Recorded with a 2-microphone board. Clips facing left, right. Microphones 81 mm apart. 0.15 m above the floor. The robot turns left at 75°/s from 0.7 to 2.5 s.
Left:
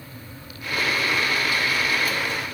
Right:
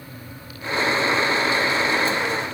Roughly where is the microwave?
No microwave in this recording.